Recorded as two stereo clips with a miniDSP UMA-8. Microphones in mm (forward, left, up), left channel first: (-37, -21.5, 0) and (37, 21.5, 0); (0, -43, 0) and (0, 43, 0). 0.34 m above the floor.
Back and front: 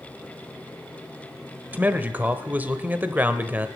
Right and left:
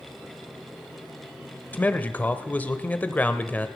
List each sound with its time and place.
1.7 s a man speaking: 30° right, 1.0 m